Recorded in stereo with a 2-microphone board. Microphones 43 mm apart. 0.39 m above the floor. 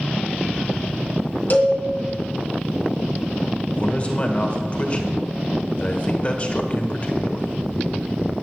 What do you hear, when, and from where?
1.5 s a cowbell: 45° left (ahead or behind), 2.5 m
3.8 s a man speaking: 30° left (ahead or behind), 1.7 m